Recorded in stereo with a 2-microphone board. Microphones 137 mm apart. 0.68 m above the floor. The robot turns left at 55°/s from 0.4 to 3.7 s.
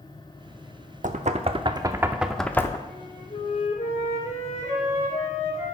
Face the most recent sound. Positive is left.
turn(degrees=120)